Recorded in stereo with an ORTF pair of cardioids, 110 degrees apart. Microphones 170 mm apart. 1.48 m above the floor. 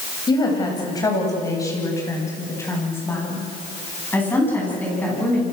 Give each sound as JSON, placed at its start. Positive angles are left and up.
{"t": 0.3, "sound": "a woman speaking", "azimuth_deg": 25, "distance_m": 9.5}